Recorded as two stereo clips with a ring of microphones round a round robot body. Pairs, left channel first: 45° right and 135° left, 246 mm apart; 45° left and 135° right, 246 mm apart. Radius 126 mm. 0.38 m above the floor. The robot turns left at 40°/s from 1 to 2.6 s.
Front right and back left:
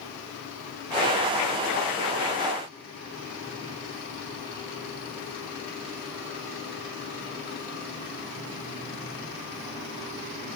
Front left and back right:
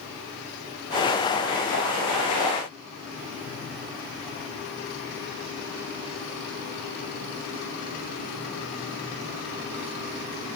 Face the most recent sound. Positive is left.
No sound to turn to.